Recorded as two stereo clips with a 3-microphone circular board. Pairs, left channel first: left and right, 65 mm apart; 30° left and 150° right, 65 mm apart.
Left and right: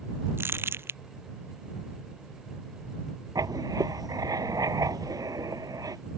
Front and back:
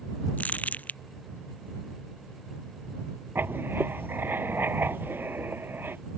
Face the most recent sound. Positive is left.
turn(degrees=-95)